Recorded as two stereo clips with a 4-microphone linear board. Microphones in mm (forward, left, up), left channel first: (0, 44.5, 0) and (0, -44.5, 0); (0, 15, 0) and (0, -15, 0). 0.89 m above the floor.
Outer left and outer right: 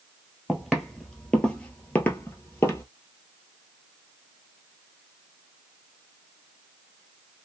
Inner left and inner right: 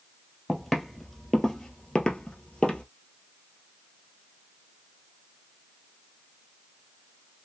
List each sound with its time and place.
0.5 s footsteps: 5° right (ahead or behind), 1.2 m; by 2.8 s 30° left (ahead or behind), 1.1 m